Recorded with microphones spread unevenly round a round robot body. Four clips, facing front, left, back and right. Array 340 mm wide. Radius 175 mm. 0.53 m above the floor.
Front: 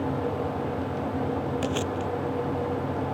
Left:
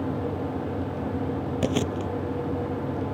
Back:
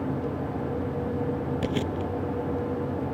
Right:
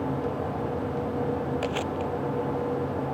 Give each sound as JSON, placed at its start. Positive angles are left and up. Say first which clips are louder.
{"t": 1.6, "sound": "chewing", "louder": "left 2 dB, even", "azimuth_deg": 110}